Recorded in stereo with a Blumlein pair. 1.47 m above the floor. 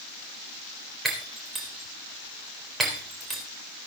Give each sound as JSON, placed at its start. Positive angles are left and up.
{"t": 1.1, "sound": "breaking glass", "azimuth_deg": -5, "distance_m": 4.0}